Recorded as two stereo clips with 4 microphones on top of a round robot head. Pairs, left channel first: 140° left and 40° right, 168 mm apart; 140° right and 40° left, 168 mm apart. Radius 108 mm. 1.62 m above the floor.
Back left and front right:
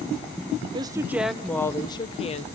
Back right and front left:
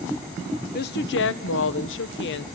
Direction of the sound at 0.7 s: 105° right.